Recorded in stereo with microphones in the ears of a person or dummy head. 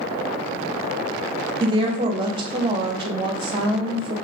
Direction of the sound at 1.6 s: 25° right (ahead or behind).